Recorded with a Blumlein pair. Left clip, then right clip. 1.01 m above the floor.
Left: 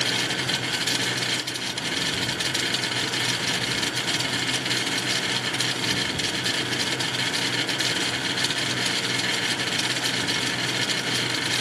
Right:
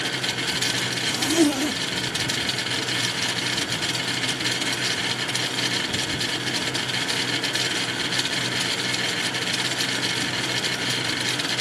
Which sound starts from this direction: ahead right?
A zipper, at 1.1 s.